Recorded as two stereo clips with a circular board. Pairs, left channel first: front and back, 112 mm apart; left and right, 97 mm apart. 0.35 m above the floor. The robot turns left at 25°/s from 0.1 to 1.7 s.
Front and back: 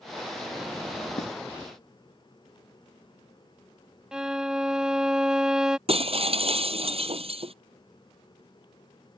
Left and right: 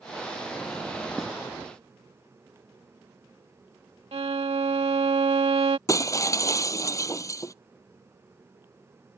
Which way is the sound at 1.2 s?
5° right.